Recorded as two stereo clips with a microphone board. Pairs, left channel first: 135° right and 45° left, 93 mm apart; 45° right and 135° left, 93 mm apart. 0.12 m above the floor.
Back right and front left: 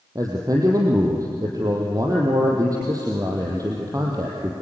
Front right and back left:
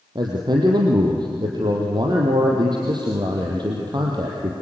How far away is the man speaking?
About 3.5 m.